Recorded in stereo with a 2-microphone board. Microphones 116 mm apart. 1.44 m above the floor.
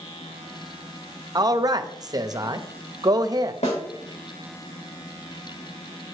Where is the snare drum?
70° left (ahead or behind), 2.5 m.